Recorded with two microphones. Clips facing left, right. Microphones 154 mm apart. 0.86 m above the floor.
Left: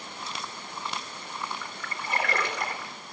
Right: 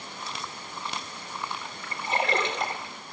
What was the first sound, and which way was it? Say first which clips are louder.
A splash: right 1 dB; 25° right (ahead or behind).